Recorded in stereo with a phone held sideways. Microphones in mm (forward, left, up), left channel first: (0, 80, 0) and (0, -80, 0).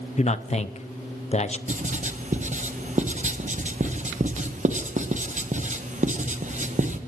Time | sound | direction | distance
0.2 | a man speaking | 45° left (ahead or behind) | 0.6 m
1.7 | writing | 50° right (ahead or behind) | 1.1 m